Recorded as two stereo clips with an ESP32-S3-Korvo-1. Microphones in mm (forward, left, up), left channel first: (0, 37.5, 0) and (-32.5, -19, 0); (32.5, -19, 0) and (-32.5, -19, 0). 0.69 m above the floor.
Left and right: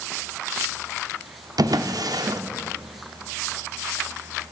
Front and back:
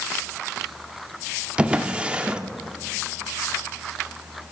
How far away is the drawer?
About 0.6 m.